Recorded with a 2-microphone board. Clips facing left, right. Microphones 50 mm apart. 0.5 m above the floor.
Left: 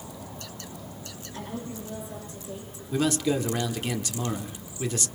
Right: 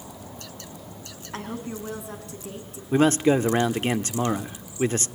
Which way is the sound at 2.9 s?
35° right (ahead or behind).